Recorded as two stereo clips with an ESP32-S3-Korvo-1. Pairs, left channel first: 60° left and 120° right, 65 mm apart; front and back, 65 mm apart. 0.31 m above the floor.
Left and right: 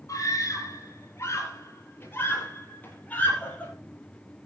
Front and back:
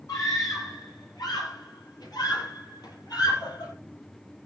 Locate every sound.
0.1 s a scream: 25° left, 7 m; by 3.7 s 10° right, 9.5 m